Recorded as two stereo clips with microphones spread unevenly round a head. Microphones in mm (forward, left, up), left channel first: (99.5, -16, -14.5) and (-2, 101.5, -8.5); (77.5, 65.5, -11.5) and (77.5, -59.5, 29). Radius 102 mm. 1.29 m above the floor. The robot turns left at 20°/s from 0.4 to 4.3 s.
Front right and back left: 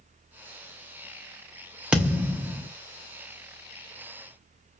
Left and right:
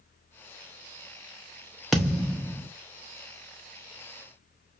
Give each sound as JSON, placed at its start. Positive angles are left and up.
{"t": 1.9, "sound": "a thud", "azimuth_deg": -150, "distance_m": 0.6}